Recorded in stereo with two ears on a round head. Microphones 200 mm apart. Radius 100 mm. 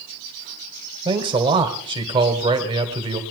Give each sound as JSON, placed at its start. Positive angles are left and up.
{"t": 1.1, "sound": "a man speaking", "side_deg": -25, "distance_m": 1.8}